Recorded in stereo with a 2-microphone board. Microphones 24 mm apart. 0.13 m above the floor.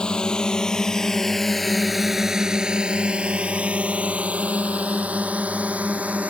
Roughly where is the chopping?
I don't hear chopping.